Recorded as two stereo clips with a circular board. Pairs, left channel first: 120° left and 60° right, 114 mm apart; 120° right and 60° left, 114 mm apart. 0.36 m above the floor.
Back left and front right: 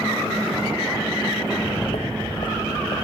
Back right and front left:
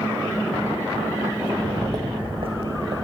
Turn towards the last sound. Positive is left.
turn(degrees=75)